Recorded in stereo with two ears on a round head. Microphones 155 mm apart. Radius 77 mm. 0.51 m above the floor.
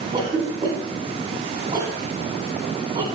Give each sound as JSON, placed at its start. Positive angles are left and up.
{"t": 0.1, "sound": "a cough", "side_deg": -30, "distance_m": 1.9}